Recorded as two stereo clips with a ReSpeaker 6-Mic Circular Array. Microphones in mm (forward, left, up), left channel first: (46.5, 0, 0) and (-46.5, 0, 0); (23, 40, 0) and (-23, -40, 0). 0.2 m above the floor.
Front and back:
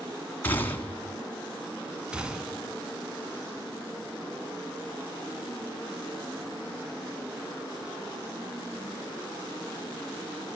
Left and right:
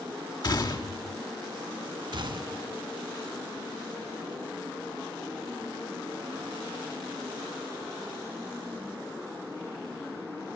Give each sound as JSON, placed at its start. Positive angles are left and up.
{"t": 0.4, "sound": "a gunshot", "azimuth_deg": 65, "distance_m": 1.6}
{"t": 2.1, "sound": "a gunshot", "azimuth_deg": -105, "distance_m": 0.7}